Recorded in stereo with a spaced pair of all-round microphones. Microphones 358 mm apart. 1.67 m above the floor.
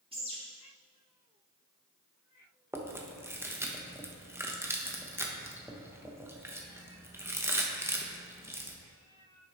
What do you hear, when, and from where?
0.1 s a bird: 15° right (ahead or behind), 1.8 m
2.7 s chewing: 5° right (ahead or behind), 0.7 m